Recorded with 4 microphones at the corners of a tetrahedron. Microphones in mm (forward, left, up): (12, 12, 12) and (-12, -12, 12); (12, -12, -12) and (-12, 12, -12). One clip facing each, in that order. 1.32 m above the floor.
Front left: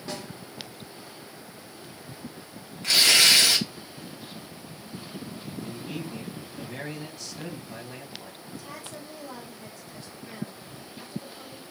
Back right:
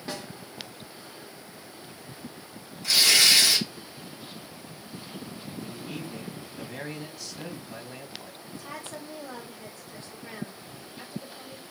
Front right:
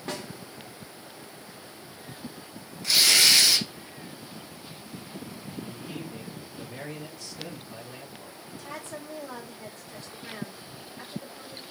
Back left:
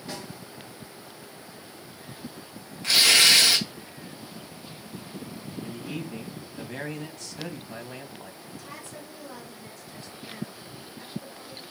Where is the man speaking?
130° left, 1.5 m.